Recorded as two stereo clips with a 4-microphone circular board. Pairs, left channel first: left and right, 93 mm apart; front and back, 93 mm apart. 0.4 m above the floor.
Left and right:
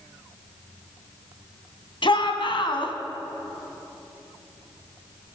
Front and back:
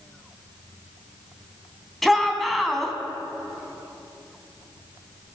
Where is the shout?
90° left, 3 m.